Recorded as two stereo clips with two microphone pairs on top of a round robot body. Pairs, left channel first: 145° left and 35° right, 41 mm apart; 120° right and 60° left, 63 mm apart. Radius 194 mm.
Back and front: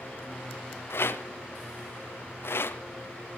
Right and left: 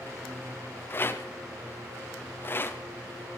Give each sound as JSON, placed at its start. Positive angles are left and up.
{"t": 0.9, "sound": "a rattle", "azimuth_deg": 180, "distance_m": 0.9}